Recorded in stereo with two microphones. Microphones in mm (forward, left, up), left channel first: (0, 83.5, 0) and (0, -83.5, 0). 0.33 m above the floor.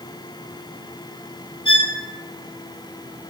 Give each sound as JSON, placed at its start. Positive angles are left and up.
{"t": 1.6, "sound": "a violin", "side_deg": -25, "distance_m": 1.5}